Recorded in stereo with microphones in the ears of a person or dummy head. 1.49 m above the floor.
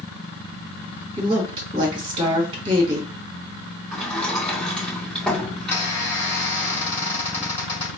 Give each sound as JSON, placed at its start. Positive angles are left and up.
{"t": 1.2, "sound": "a woman speaking", "side_deg": -25, "distance_m": 1.7}
{"t": 3.9, "sound": "a sliding door", "side_deg": 5, "distance_m": 2.0}
{"t": 5.6, "sound": "a squeak", "side_deg": 20, "distance_m": 1.7}